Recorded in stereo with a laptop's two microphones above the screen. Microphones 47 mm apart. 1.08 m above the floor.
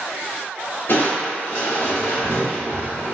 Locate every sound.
0.9 s crushing: 55° left (ahead or behind), 1.2 m